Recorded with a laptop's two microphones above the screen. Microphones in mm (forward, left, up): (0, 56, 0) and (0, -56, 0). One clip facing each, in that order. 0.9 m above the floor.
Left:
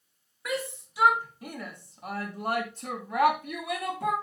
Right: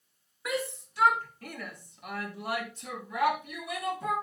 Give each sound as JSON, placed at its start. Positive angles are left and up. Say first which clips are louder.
{"t": 0.5, "sound": "a shout", "louder": "even", "side_deg": -5, "distance_m": 2.0}